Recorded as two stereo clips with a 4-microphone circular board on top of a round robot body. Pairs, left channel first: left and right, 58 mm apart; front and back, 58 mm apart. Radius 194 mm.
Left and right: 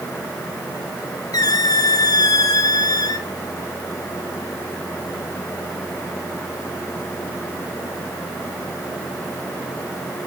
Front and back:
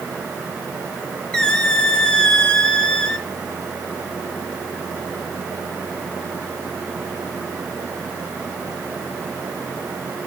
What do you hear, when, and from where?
1.3 s a squeak: 80° left, 0.9 m